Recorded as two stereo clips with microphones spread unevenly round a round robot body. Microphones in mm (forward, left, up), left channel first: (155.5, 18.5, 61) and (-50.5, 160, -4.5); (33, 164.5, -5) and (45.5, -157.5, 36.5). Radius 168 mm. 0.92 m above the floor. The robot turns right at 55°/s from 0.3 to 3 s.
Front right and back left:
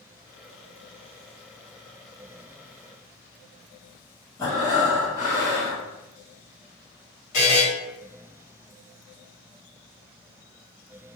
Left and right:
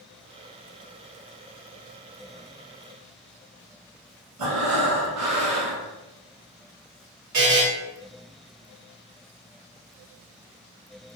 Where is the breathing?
115° right, 1.4 m.